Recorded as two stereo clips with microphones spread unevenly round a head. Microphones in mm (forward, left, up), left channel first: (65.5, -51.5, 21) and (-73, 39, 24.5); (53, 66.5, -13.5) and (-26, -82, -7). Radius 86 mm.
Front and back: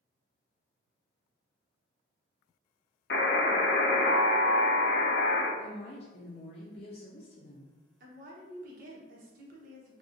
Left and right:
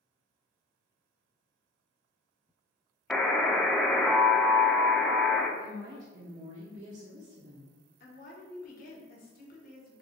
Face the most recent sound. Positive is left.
turn(degrees=105)